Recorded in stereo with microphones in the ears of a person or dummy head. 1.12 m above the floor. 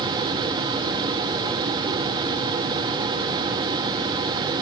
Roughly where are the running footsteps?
I don't hear running footsteps.